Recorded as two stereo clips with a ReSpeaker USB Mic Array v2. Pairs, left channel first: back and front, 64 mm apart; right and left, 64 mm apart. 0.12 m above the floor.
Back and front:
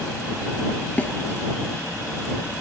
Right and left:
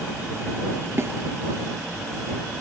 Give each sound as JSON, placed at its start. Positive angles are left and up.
{"t": 1.0, "sound": "a snare drum", "azimuth_deg": 120}